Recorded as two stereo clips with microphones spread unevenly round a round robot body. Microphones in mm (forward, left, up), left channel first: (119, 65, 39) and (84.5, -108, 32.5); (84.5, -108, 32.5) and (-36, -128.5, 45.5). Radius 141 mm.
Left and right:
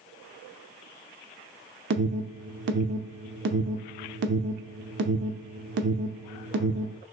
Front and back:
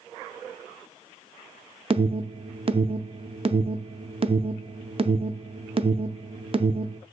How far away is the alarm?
About 0.7 m.